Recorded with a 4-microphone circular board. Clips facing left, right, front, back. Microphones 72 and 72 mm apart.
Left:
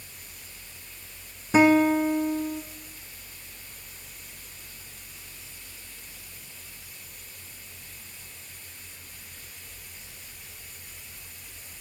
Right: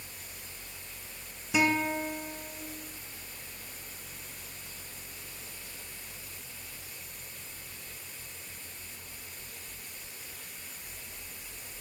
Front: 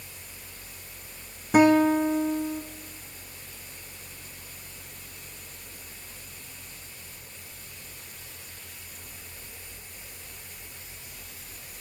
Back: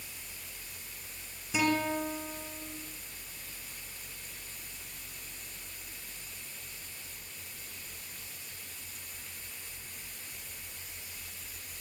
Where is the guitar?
40° left, 2 m.